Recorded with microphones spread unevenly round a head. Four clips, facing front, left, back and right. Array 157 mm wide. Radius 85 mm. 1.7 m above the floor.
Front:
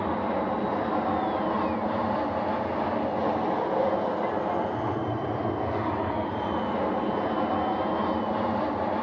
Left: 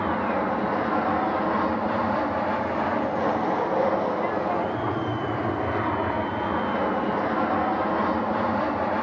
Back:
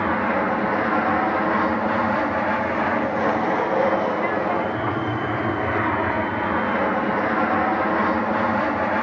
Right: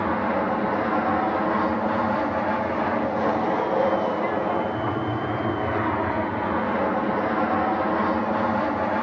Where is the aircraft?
150° right.